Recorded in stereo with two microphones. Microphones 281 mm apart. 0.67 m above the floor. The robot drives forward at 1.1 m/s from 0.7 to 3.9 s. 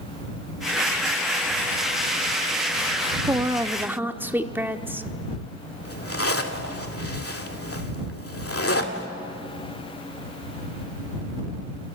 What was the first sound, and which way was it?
A woman speaking, 15° right (ahead or behind).